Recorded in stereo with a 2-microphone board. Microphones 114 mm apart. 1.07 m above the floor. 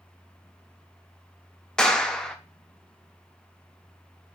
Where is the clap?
5° left (ahead or behind), 0.7 m.